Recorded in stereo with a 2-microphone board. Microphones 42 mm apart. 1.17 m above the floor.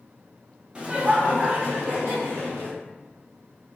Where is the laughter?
25° right (ahead or behind), 0.8 m; by 2.7 s 70° right (ahead or behind), 1.5 m.